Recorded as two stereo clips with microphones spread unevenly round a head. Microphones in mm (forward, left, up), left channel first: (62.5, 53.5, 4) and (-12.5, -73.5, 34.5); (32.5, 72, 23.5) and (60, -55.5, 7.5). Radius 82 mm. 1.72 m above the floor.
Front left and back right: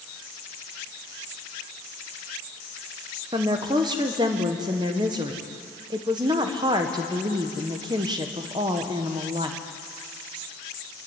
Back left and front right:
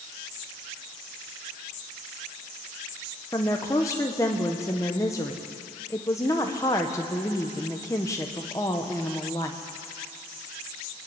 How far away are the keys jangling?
No keys jangling in this recording.